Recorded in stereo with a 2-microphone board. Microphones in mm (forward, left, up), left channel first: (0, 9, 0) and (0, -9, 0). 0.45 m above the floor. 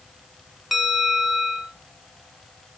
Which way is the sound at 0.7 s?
20° right (ahead or behind).